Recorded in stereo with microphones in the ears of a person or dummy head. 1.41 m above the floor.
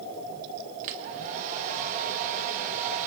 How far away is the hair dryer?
About 1.6 m.